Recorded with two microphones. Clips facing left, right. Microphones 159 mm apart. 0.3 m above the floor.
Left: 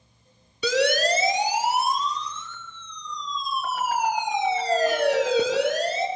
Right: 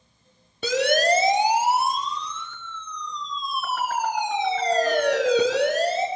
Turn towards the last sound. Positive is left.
turn(degrees=-75)  # may be behind; listen again after turning